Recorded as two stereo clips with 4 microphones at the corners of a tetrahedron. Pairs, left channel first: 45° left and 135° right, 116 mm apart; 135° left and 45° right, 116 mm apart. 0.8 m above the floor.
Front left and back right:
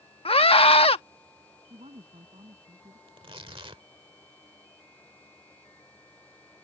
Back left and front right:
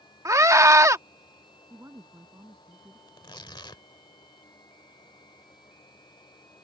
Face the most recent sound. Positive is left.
turn(degrees=-175)